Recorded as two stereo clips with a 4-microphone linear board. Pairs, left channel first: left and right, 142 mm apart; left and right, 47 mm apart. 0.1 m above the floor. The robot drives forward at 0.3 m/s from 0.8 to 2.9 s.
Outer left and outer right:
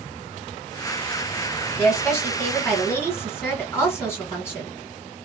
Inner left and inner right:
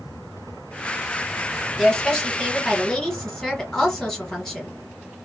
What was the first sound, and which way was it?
A woman speaking, 15° left (ahead or behind).